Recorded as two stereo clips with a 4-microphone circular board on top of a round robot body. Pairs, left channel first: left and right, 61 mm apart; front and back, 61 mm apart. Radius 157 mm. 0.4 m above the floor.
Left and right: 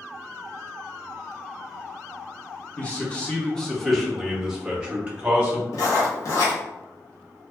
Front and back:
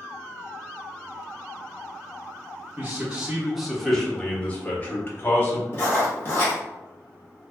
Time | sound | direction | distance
2.8 | a man speaking | 135° left | 1.2 m
5.7 | writing | 50° left | 1.1 m